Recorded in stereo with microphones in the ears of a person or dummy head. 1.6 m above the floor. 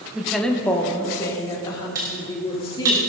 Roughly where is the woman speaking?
Centre.